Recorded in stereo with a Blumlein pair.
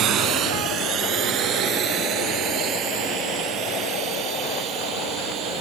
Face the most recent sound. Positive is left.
turn(degrees=-30)